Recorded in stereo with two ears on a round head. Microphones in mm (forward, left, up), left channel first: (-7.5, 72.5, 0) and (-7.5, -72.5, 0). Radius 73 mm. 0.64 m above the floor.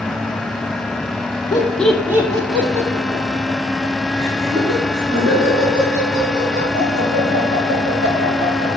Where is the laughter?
25° left (ahead or behind), 1.0 m; by 8.7 s 60° right (ahead or behind), 8 m.